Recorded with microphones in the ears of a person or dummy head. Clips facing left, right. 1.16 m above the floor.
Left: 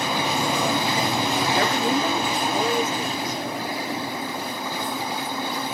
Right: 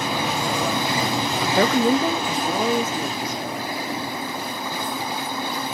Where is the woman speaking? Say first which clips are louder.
Right 8 dB; 50° right (ahead or behind), 0.6 m; by 3.4 s 80° right, 2.5 m.